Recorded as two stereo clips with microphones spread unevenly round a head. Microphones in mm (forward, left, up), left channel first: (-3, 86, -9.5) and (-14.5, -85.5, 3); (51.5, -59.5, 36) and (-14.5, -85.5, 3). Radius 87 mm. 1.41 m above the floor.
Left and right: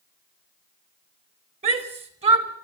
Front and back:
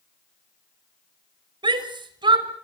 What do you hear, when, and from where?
1.6 s a shout: 150° right, 4 m